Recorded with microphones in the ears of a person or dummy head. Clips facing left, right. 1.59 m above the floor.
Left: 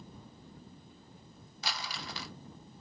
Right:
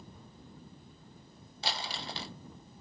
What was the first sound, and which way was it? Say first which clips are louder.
Crumpling: right 3 dB; 30° right (ahead or behind).